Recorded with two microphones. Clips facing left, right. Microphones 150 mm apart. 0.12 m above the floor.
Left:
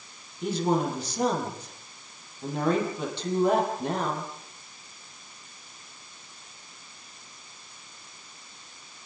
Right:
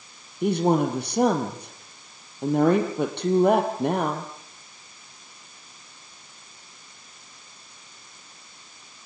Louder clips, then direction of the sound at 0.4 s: Right 5 dB; 70° right (ahead or behind).